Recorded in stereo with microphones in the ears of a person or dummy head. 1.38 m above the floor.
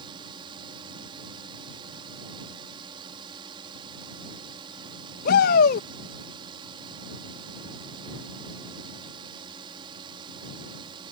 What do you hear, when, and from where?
0.0 s a drone: 30° right (ahead or behind)
5.2 s a shout: 60° left (ahead or behind)